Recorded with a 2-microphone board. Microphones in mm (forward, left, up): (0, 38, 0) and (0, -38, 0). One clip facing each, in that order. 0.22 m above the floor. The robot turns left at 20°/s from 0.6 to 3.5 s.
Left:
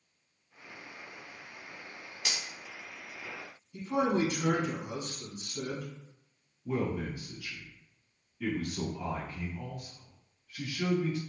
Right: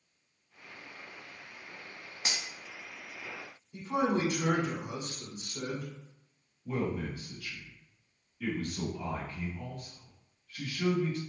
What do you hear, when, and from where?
2.2 s cutlery clinking: 30° right (ahead or behind), 0.7 m
3.7 s a man speaking: 40° right (ahead or behind), 1.4 m
6.7 s a man speaking: 20° left (ahead or behind), 1.5 m